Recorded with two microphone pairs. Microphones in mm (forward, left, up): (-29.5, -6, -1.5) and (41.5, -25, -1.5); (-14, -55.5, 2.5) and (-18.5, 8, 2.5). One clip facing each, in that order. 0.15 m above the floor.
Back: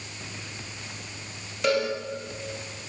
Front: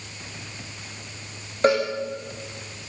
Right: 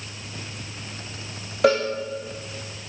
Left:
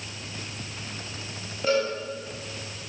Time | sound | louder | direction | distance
1.6 | a cowbell | front 4 dB, right 5 dB | 70° right | 9.5 m